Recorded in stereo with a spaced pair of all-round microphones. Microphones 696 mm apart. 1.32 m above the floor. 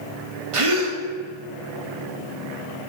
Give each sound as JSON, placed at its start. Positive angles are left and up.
{"t": 0.5, "sound": "a gasp", "side_deg": -50, "distance_m": 1.0}